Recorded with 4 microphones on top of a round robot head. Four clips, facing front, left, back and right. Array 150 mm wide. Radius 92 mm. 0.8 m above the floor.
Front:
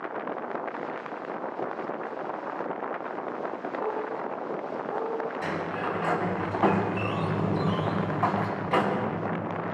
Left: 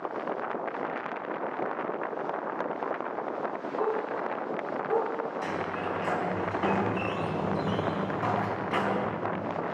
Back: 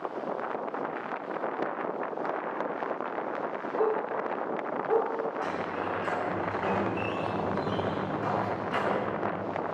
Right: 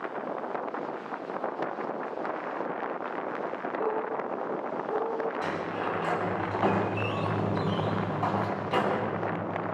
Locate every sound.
3.8 s a dog barking: 175° left, 4.5 m; by 5.1 s 165° left, 5.5 m
5.4 s a sliding door: 20° right, 4.5 m